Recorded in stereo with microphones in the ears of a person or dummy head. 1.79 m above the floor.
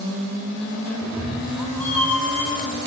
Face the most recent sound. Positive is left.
turn(degrees=15)  # may be behind; listen again after turning